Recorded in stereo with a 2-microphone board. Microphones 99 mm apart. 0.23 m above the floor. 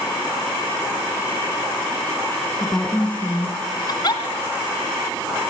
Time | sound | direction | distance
2.6 | a woman speaking | 15° left (ahead or behind) | 2.5 m
3.9 | a giggle | 45° left (ahead or behind) | 1.9 m